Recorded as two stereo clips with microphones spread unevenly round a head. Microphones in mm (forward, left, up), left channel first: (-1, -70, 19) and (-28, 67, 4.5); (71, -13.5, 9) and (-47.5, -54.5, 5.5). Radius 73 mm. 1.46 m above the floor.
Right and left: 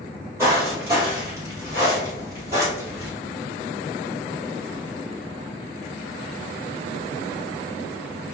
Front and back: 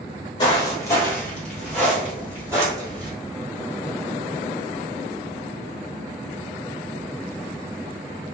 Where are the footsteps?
30° left, 1.6 m; by 3.1 s 165° left, 1.7 m.